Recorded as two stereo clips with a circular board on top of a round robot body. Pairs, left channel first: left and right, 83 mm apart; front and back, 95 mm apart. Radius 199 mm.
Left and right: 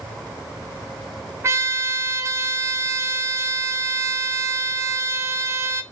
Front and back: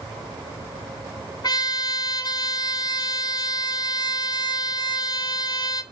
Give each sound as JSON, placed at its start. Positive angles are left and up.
{"t": 1.4, "sound": "a trumpet", "azimuth_deg": -40, "distance_m": 0.7}